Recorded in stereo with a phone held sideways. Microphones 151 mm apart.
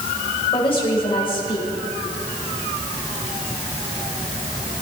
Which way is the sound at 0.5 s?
35° left (ahead or behind).